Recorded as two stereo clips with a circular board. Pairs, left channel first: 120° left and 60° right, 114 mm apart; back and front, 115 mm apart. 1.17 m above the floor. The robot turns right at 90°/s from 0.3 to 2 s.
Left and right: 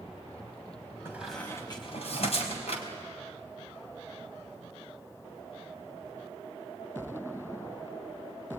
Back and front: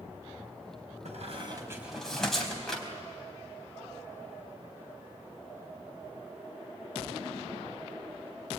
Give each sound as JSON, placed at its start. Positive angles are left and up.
{"t": 1.1, "sound": "a squeak", "azimuth_deg": 10, "distance_m": 4.0}